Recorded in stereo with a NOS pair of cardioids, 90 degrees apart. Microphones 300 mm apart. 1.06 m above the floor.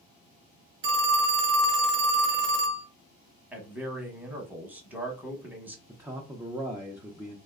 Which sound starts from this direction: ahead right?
A phone ringing, at 0.8 s.